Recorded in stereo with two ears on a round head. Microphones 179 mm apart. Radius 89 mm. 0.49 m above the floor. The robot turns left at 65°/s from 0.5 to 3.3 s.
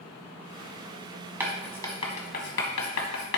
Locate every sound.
1.4 s writing: 10° right (ahead or behind), 1.6 m; by 3.4 s 70° left (ahead or behind), 1.6 m